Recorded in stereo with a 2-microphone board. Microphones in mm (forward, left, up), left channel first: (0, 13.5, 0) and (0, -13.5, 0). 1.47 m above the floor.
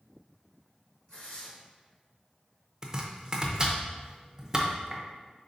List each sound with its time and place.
1.1 s tearing paper: 40° left (ahead or behind), 1.7 m
2.8 s chopping: 25° right (ahead or behind), 0.7 m